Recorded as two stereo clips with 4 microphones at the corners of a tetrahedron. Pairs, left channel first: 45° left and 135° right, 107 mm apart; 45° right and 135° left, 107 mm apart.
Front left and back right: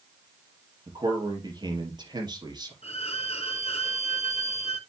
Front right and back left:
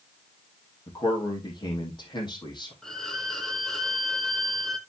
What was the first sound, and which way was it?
A man speaking, 90° right.